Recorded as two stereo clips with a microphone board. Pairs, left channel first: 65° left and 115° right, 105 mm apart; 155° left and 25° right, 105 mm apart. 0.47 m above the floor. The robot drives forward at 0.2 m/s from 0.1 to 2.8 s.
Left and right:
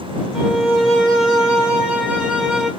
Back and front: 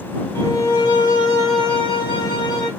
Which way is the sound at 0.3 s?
155° left.